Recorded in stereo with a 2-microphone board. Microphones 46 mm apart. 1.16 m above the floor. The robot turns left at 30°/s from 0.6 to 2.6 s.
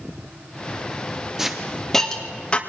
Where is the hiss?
10° right (ahead or behind), 2 m; by 2.6 s 30° left (ahead or behind), 2 m.